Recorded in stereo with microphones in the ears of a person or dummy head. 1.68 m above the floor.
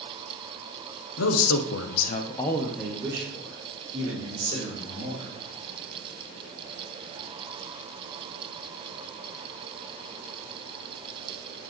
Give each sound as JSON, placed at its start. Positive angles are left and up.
{"t": 1.2, "sound": "a man speaking", "side_deg": 80, "distance_m": 1.2}